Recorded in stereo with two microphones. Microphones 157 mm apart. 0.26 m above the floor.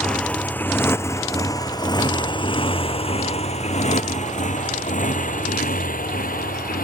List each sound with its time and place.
0.0 s a motorcycle: 5° left (ahead or behind); by 6.8 s 70° left (ahead or behind)